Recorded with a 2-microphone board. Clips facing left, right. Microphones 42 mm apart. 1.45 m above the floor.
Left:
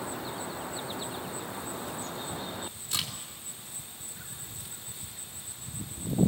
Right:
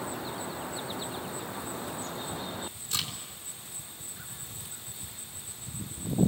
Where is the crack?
15° left (ahead or behind), 3 m.